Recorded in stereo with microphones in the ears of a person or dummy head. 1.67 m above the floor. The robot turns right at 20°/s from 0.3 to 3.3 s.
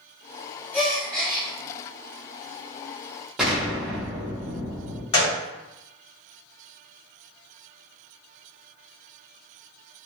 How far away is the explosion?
About 0.7 m.